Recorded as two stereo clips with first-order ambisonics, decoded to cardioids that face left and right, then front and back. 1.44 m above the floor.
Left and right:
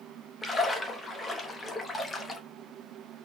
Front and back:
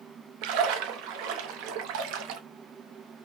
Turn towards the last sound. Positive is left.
turn(degrees=170)